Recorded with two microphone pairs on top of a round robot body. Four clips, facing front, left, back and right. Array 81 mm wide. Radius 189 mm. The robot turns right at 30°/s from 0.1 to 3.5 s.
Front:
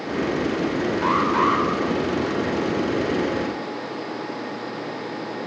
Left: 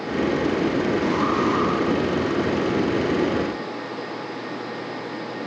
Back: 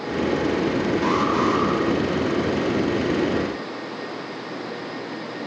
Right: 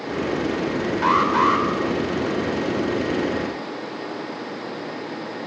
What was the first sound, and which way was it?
An alarm, 80° right.